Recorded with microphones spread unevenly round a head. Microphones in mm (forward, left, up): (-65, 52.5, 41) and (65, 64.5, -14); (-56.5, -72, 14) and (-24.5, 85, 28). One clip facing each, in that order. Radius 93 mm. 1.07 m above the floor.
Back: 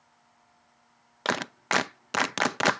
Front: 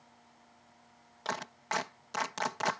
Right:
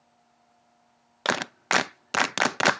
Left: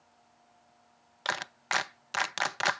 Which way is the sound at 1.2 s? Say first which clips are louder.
Back 7 dB, right 9 dB; 130° right.